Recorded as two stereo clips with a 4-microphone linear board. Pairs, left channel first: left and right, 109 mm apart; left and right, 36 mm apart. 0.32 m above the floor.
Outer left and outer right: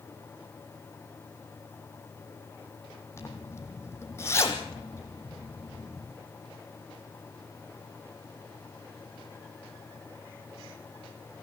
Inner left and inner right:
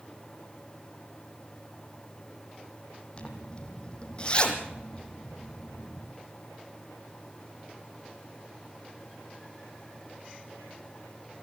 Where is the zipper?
25° left (ahead or behind), 2.5 m.